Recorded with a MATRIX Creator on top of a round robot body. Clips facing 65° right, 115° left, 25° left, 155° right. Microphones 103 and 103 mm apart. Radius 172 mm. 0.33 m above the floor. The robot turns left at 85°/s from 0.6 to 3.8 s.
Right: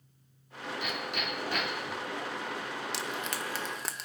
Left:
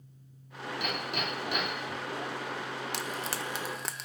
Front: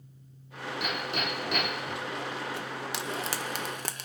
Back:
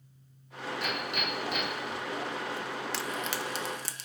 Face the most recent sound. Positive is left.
turn(degrees=20)